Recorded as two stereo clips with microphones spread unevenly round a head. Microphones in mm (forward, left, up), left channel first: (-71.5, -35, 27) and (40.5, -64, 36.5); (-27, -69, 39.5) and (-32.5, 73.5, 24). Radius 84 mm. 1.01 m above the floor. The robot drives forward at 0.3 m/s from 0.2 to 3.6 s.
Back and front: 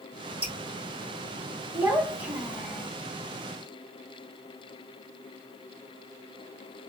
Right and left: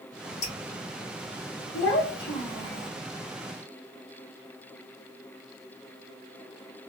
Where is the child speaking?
85° right, 1.3 m; by 2.9 s 100° right, 1.3 m.